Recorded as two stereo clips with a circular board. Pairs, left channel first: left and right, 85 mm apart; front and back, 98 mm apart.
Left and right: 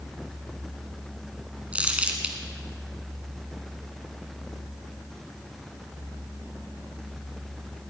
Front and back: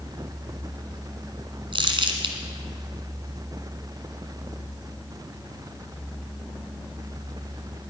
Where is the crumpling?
160° right, 1.6 m.